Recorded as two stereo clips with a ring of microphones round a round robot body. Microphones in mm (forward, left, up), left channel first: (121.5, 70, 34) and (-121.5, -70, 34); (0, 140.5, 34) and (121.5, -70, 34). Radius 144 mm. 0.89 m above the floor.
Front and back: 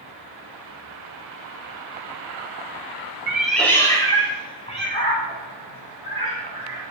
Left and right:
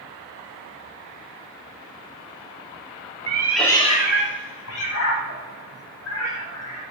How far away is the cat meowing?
About 0.7 m.